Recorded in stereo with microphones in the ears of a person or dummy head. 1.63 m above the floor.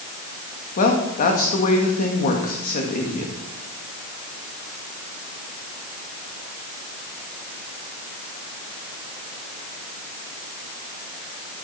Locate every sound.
0.8 s a woman speaking: 40° left (ahead or behind), 2 m